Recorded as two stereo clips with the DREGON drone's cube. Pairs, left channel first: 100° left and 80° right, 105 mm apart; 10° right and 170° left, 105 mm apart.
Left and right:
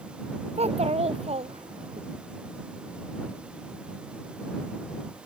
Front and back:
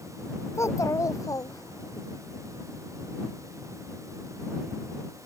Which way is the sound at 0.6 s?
75° right.